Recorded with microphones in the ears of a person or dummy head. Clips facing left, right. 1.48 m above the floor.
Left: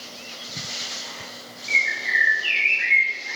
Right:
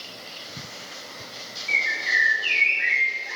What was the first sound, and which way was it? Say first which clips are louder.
A bird: even; 25° left (ahead or behind).